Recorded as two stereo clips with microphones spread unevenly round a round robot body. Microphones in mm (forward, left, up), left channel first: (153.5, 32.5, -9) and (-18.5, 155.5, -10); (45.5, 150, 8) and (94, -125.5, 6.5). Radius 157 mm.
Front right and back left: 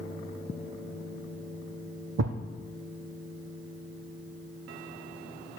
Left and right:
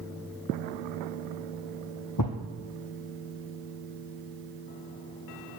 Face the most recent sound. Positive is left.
turn(degrees=135)